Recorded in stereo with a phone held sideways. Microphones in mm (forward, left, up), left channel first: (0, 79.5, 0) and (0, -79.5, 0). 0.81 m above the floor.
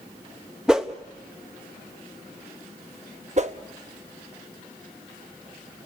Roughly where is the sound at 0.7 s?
Centre.